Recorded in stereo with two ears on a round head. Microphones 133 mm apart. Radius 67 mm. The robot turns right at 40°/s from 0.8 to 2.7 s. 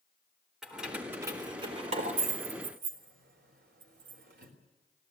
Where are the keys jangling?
5° right (ahead or behind), 4 m; by 4.5 s 80° right, 4 m.